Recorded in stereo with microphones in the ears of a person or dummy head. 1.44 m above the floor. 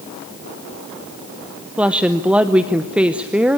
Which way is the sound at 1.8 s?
10° right (ahead or behind).